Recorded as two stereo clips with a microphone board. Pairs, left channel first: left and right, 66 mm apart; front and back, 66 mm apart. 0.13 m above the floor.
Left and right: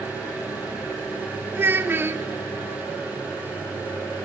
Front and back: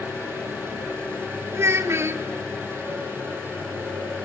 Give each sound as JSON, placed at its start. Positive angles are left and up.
{"t": 0.0, "sound": "an engine running", "azimuth_deg": 80, "distance_m": 7.5}
{"t": 1.5, "sound": "a child speaking", "azimuth_deg": -140, "distance_m": 1.2}